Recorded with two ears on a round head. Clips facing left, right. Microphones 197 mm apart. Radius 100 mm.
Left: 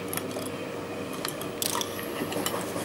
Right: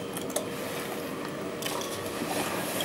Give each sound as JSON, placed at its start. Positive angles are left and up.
{"t": 1.6, "sound": "crushing", "side_deg": 55, "distance_m": 1.7}